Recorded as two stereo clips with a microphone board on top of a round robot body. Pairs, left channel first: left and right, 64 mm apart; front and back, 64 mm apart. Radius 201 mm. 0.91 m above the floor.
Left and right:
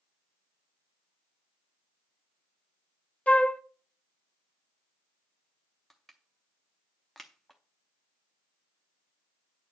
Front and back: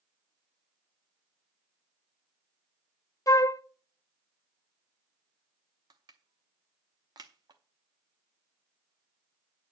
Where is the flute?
25° left, 0.9 m.